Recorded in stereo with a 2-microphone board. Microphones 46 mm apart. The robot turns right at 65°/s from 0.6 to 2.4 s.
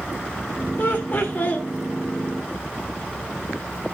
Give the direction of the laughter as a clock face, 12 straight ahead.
9 o'clock.